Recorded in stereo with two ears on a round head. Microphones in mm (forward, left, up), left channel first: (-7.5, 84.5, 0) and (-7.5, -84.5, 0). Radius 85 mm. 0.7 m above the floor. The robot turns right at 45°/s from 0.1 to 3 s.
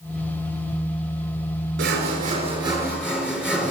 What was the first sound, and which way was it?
Sawing, 60° right.